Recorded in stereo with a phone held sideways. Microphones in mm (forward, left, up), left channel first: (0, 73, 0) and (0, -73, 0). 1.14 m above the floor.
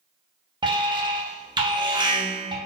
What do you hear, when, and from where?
0.6 s an alarm: 30° right (ahead or behind), 0.8 m